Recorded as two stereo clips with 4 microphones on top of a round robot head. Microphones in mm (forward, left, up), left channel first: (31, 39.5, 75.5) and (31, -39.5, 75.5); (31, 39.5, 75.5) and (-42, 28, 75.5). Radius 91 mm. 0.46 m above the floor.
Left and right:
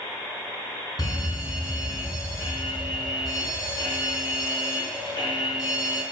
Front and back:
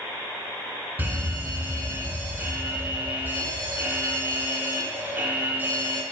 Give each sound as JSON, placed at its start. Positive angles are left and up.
{"t": 1.0, "sound": "a fire alarm", "azimuth_deg": 130, "distance_m": 6.0}